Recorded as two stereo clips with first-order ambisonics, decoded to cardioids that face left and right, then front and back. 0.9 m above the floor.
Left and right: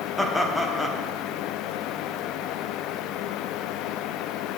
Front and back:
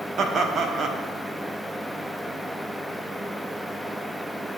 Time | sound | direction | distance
0.2 | laughter | 165° left | 0.7 m